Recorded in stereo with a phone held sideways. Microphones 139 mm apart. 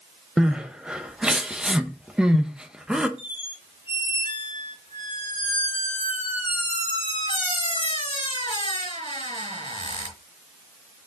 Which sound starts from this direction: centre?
Crying, at 0.4 s.